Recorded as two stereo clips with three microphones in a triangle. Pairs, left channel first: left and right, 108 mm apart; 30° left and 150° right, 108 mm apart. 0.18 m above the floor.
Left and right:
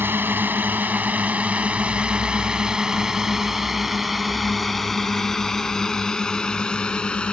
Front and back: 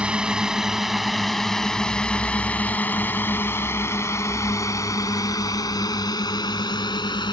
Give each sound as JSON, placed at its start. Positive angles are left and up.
{"t": 0.0, "sound": "a drone", "azimuth_deg": -90}